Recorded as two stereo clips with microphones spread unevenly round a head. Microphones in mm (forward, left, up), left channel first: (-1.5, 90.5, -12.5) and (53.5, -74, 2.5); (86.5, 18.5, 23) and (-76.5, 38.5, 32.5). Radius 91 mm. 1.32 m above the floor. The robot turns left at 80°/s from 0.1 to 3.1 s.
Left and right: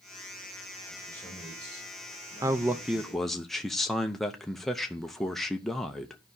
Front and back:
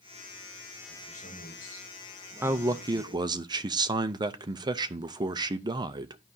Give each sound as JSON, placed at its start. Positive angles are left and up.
{"t": 0.9, "sound": "a man speaking", "azimuth_deg": 50, "distance_m": 6.0}
{"t": 2.4, "sound": "a man speaking", "azimuth_deg": -125, "distance_m": 0.5}